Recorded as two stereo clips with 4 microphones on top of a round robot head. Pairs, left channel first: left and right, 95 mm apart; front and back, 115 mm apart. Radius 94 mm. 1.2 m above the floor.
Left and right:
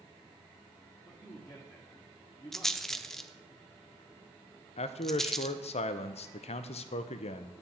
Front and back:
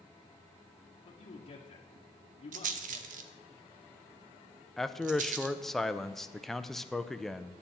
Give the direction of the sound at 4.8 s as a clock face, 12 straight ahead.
9 o'clock.